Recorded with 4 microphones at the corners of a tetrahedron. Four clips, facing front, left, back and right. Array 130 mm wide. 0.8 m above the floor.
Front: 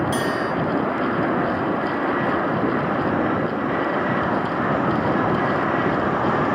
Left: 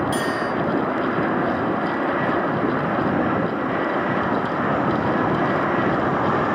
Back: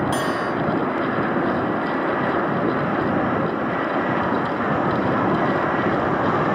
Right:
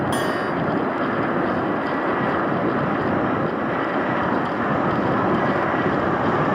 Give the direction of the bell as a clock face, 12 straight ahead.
4 o'clock.